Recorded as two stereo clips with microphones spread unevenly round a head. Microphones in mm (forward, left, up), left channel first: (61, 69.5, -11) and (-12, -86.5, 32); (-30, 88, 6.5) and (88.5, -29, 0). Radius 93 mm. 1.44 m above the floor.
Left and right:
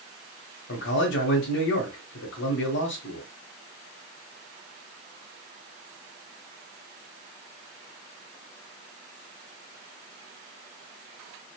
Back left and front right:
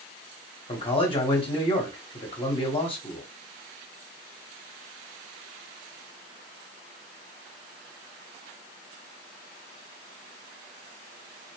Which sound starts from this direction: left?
A man speaking, at 0.7 s.